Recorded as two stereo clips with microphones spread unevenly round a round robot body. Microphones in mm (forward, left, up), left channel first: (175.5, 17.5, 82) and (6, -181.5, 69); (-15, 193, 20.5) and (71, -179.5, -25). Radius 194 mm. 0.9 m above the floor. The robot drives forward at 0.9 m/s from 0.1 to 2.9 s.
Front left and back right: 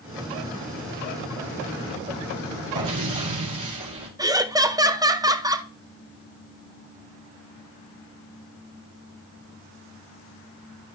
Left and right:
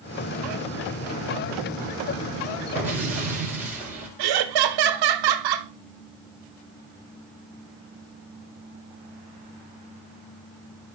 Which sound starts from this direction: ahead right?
Laughter, at 4.2 s.